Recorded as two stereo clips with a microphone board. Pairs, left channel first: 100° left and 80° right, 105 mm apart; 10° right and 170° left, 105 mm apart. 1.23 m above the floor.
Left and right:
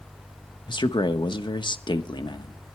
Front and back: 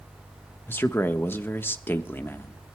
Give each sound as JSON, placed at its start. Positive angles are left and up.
{"t": 0.7, "sound": "a man speaking", "azimuth_deg": 60, "distance_m": 1.3}